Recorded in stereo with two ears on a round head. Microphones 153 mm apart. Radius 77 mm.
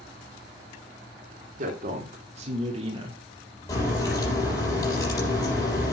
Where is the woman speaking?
50° right (ahead or behind), 3 m; by 3.2 s 30° right (ahead or behind), 2.5 m.